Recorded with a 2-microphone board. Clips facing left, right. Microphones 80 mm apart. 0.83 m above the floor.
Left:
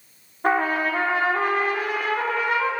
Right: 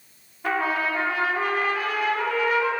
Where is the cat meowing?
I don't hear a cat meowing.